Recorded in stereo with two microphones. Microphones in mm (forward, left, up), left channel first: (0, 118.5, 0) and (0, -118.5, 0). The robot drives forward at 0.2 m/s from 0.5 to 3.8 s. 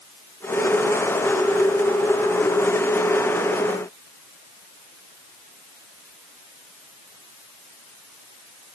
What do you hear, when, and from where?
Only background noise.